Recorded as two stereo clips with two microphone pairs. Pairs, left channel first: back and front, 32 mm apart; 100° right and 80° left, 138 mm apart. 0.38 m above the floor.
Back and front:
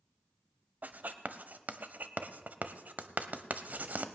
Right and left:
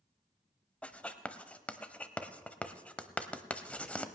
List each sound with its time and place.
0.8 s writing: 20° right, 0.8 m